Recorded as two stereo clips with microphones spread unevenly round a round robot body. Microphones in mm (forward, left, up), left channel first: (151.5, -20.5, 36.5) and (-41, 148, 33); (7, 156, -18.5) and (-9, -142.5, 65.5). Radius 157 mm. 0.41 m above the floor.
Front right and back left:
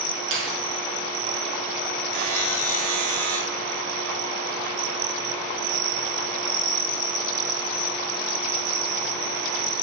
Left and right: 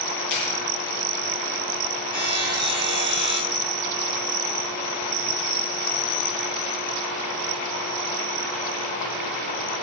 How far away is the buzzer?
About 8 m.